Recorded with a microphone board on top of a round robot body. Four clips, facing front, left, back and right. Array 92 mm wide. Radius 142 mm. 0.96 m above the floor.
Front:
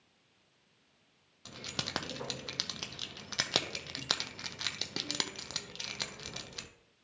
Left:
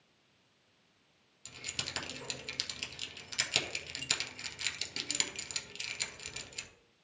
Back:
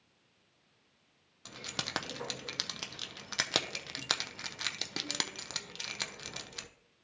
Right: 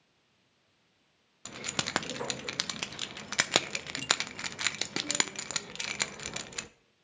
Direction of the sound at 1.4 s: 90° right.